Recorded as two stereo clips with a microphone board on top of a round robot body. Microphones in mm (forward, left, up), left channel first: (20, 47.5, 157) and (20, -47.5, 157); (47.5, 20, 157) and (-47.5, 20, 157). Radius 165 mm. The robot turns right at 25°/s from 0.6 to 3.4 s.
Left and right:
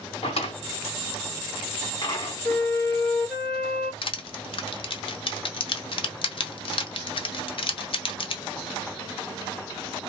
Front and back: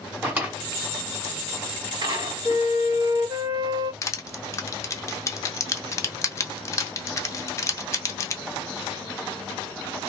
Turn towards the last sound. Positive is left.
turn(degrees=60)